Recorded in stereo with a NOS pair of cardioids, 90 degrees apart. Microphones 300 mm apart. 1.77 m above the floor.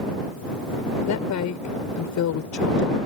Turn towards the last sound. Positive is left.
turn(degrees=70)